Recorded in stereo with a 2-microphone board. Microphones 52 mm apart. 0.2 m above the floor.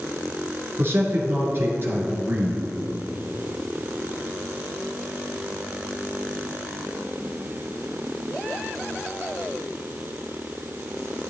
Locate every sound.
0.8 s a man speaking: 45° right (ahead or behind), 3 m